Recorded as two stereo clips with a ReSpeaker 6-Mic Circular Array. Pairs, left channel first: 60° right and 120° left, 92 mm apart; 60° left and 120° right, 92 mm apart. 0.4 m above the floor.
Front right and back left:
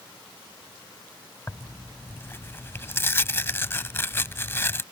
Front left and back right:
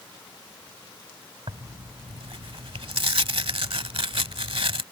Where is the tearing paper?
120° right.